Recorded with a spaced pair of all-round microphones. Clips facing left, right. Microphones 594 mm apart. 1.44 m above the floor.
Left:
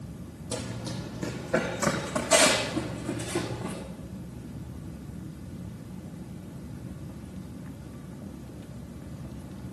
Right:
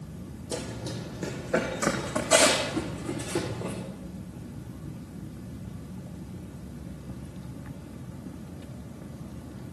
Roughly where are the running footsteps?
Left.